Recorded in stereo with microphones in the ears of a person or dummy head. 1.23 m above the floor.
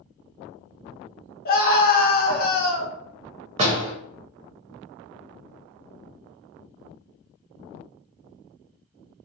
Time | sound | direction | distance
1.4 | a scream | 35° left (ahead or behind) | 0.7 m
3.6 | a door slam | 35° right (ahead or behind) | 0.8 m